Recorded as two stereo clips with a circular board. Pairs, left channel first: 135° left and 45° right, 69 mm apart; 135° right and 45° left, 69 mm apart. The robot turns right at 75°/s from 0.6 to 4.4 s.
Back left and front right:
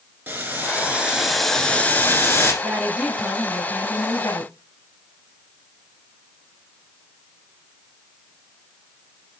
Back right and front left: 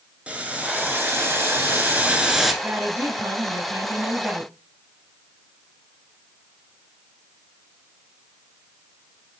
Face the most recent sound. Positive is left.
turn(degrees=130)